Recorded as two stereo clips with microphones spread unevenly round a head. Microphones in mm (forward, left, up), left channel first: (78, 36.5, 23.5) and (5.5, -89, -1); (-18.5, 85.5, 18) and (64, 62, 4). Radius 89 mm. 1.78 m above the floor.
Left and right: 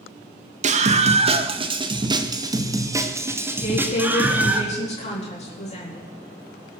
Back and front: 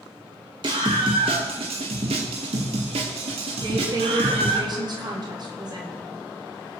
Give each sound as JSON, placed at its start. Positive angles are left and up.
{"t": 0.6, "sound": "a scream", "azimuth_deg": -80, "distance_m": 1.6}
{"t": 3.6, "sound": "a woman speaking", "azimuth_deg": 20, "distance_m": 4.0}